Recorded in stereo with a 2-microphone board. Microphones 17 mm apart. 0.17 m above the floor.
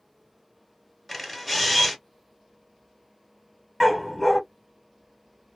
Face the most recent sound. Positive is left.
turn(degrees=5)  # may be behind; listen again after turning